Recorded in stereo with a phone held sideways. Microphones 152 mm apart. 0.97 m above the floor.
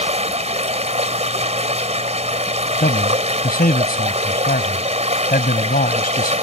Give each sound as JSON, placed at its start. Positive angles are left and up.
{"t": 0.0, "sound": "running water", "side_deg": -45}
{"t": 2.8, "sound": "a man speaking", "side_deg": 70}